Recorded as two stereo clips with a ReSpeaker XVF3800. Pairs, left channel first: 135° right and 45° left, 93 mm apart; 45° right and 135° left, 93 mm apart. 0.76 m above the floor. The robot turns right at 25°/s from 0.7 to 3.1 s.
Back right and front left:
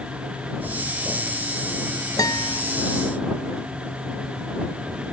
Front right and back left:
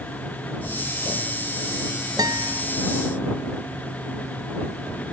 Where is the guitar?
Straight behind; by 2.6 s 170° right.